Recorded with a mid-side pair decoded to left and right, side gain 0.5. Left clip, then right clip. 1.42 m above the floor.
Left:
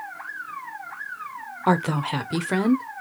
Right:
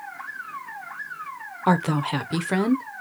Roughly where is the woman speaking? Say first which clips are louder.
Even; ahead.